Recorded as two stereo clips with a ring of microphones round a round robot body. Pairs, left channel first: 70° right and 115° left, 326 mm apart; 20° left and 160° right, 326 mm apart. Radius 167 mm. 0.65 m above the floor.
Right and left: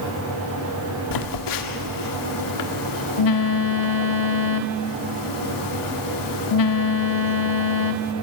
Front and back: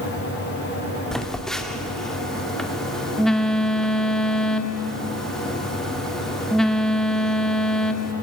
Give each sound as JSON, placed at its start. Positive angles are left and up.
{"t": 1.1, "sound": "a phone buzzing", "azimuth_deg": -65, "distance_m": 1.5}